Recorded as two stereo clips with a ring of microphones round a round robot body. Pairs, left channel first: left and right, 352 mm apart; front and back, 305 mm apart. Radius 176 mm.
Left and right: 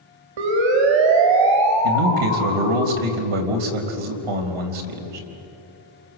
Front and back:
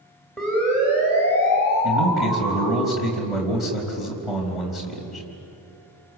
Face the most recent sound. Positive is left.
turn(degrees=-90)